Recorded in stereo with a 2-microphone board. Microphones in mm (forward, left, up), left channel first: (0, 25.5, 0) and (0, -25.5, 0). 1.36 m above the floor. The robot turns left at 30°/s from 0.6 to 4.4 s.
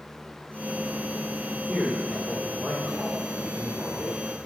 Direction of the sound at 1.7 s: 40° left.